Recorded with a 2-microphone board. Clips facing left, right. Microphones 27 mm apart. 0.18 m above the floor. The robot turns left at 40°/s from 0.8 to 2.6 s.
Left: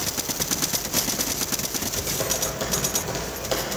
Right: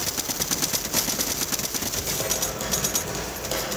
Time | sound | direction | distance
1.9 | typing on a keyboard | 10° right (ahead or behind) | 4 m